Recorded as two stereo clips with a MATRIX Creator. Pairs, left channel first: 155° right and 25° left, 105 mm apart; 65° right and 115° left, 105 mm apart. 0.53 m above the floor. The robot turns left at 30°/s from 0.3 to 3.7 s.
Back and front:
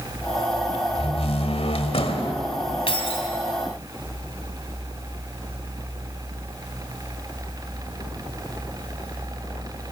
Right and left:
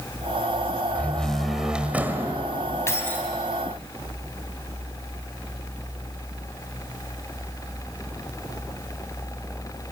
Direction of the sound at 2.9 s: 130° right.